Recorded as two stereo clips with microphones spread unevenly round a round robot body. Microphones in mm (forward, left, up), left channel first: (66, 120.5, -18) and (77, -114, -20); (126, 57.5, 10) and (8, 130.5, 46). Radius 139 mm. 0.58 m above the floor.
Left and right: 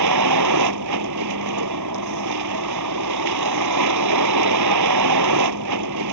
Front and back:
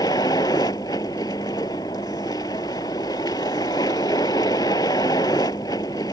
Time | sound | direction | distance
0.0 | a vehicle | 110° right | ?